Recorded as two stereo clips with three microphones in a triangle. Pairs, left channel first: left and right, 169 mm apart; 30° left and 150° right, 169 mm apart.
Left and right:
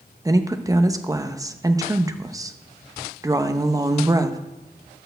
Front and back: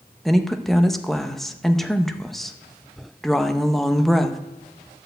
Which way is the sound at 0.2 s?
55° right.